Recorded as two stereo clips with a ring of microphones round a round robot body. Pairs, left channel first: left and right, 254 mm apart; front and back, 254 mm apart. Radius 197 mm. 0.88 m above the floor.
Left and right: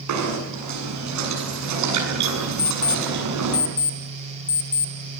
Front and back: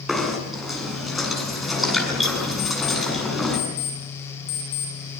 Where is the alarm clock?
30° left, 3.5 m.